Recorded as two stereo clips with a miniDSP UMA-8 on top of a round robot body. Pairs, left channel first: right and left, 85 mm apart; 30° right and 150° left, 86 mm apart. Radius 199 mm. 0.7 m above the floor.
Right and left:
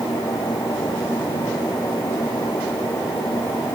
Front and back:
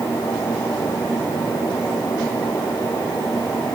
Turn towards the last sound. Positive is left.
No sound to turn to.